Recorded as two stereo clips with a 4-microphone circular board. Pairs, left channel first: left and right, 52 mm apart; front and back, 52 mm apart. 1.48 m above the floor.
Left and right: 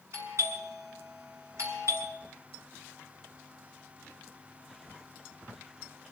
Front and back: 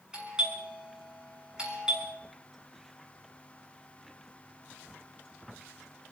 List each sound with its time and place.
0.1 s a doorbell: 110° right, 6 m